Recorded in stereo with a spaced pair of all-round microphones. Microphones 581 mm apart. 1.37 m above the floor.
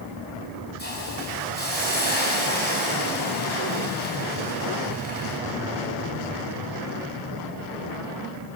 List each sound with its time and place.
0.8 s a hiss: 15° left (ahead or behind), 7 m